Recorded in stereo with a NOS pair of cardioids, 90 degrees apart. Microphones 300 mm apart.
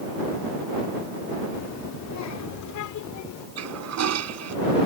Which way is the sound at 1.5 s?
55° left.